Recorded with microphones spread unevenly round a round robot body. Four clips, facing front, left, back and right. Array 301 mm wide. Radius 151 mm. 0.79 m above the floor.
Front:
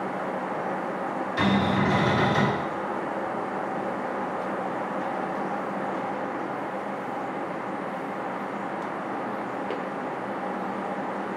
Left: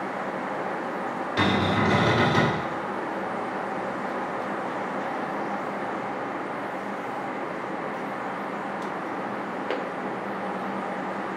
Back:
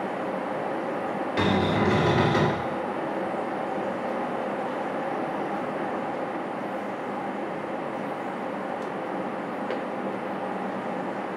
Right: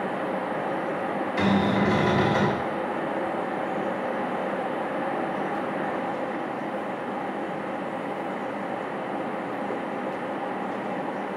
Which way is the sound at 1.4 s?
150° left.